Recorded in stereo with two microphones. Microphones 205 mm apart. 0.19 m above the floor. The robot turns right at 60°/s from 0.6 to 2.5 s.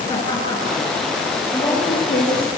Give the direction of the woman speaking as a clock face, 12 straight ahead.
11 o'clock.